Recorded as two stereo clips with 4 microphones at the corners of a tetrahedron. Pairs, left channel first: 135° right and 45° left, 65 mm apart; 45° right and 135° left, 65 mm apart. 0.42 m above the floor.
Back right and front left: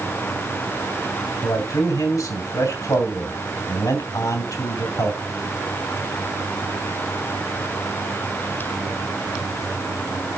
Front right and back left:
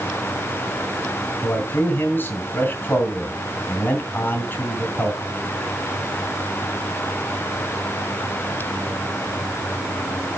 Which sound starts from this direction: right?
A man speaking, at 1.4 s.